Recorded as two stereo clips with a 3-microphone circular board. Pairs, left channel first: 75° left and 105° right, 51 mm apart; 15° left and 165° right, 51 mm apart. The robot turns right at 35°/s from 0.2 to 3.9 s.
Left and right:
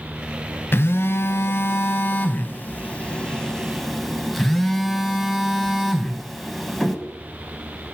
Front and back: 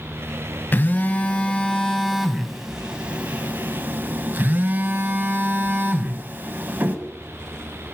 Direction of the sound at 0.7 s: 55° left.